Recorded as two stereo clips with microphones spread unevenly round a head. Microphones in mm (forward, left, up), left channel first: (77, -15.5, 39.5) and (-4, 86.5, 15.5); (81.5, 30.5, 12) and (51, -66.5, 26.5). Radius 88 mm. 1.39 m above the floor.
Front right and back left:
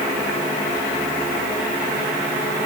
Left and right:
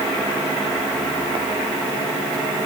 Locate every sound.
Only background noise.